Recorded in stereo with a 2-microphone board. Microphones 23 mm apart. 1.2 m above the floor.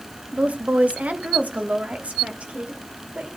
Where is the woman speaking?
70° right (ahead or behind), 1.3 m; by 3.3 s 65° right (ahead or behind), 5 m.